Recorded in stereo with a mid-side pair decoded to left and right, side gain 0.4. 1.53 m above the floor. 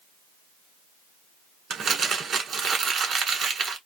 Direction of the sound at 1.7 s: 60° right.